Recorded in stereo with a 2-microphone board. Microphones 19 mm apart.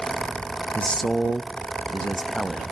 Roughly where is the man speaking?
Left.